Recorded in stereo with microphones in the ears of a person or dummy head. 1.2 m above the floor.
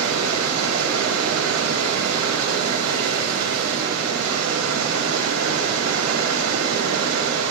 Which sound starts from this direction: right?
Running water, at 0.0 s.